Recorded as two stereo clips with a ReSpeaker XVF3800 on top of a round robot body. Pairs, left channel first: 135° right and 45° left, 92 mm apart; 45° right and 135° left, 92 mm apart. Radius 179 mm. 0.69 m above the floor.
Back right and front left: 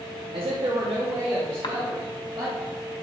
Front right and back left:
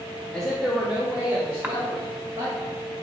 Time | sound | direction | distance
0.3 | a man speaking | 35° left | 1.1 m
1.6 | a cough | 155° right | 1.5 m